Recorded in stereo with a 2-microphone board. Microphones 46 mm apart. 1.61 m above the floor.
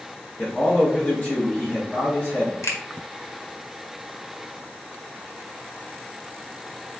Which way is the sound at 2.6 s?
70° left (ahead or behind).